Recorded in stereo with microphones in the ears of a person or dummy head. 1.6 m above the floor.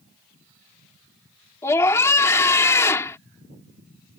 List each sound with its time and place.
1.6 s a scream: 15° left (ahead or behind)